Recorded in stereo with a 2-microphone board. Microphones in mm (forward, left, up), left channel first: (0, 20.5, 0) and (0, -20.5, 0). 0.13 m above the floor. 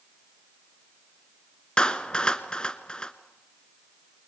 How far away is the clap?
About 1.4 m.